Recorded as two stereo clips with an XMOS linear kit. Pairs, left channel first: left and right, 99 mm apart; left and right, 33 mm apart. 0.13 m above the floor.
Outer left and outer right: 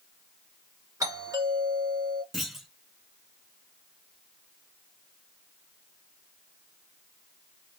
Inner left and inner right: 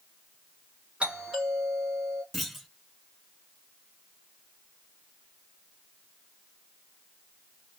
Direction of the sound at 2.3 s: Centre (ahead or behind).